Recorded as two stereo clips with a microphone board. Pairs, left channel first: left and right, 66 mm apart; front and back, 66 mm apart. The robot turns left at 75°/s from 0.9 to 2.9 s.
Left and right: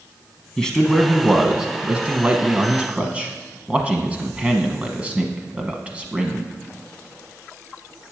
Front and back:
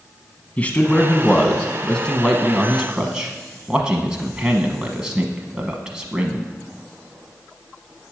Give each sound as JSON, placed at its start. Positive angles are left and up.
{"t": 0.6, "sound": "a man speaking", "azimuth_deg": 25, "distance_m": 1.0}